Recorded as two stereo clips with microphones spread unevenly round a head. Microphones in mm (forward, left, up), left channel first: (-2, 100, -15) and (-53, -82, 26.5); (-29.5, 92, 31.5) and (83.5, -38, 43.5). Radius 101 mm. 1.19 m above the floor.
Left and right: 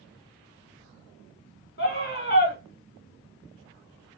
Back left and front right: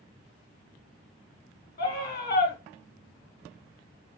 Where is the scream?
100° left, 2.0 m.